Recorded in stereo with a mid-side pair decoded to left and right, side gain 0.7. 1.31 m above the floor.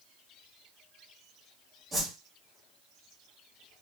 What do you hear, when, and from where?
1.9 s a whoosh: 15° right, 1.4 m